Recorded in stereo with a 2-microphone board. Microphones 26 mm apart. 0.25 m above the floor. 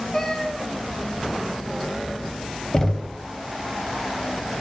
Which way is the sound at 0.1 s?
25° left (ahead or behind).